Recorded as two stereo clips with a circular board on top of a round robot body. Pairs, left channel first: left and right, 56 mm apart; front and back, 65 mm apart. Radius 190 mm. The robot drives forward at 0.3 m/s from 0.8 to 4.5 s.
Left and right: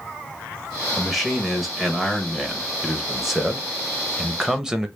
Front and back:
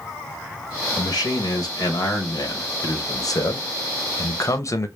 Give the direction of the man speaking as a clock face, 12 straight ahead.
12 o'clock.